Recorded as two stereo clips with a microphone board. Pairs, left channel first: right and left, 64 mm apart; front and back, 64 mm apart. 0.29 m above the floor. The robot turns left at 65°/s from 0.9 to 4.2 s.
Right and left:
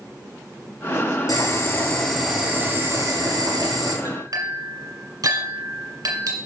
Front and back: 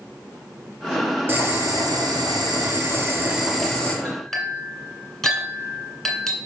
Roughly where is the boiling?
Behind right.